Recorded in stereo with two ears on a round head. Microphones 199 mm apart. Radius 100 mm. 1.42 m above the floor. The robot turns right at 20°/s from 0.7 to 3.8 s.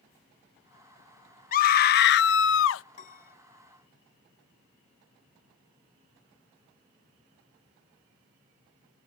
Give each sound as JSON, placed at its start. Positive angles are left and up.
{"t": 1.5, "sound": "a scream", "side_deg": 35}
{"t": 2.9, "sound": "a piano", "side_deg": 30}